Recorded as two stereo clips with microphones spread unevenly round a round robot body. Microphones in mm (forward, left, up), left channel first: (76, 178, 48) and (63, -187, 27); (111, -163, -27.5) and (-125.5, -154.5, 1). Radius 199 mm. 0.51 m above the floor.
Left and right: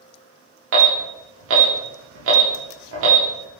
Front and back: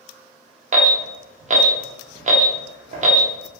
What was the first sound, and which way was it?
An alarm, 125° right.